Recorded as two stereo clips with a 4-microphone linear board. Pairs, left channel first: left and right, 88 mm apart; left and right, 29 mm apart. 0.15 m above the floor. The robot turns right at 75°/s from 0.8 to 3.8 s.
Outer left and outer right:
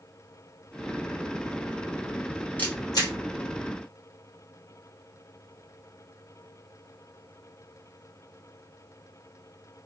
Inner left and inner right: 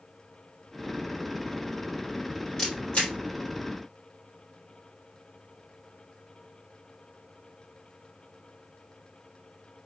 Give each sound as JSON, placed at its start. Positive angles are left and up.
{"t": 2.6, "sound": "a camera shutter", "side_deg": 15, "distance_m": 2.0}